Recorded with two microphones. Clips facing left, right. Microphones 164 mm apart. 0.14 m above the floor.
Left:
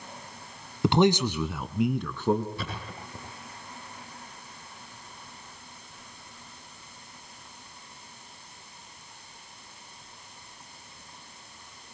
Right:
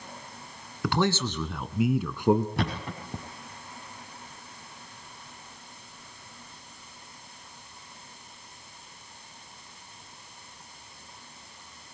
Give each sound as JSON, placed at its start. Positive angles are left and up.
{"t": 0.8, "sound": "a man speaking", "side_deg": 25, "distance_m": 1.2}
{"t": 2.6, "sound": "a thud", "side_deg": -80, "distance_m": 5.5}